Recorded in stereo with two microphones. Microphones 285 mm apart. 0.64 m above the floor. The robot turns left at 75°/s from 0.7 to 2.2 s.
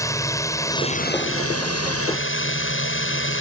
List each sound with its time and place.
0.0 s a drone: 165° left; by 3.4 s 55° left